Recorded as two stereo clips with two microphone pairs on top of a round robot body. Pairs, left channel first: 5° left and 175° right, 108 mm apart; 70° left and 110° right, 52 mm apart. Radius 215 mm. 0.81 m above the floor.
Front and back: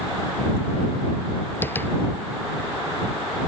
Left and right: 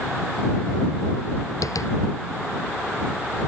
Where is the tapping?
75° left.